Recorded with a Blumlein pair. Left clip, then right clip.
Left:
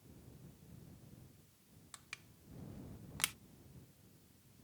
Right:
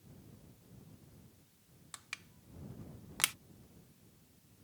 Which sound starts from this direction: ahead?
Crushing, at 1.9 s.